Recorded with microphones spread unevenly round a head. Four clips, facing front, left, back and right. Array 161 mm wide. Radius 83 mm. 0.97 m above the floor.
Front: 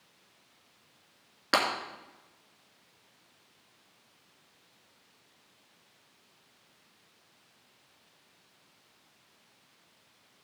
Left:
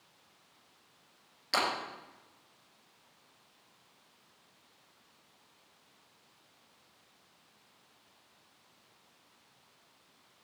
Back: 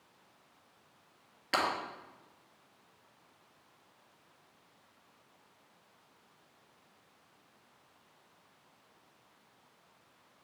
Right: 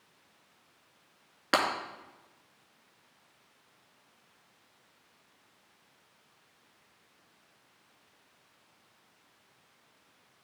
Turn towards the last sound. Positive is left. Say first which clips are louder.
# right 4 dB, front 4 dB
turn(degrees=-50)